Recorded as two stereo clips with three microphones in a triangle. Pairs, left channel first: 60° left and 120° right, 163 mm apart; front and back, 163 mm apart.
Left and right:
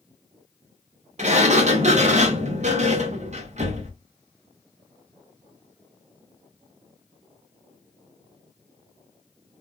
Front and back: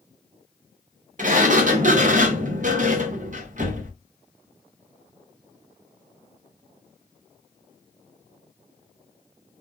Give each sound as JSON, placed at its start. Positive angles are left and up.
{"t": 1.2, "sound": "a sliding door", "azimuth_deg": -155, "distance_m": 0.6}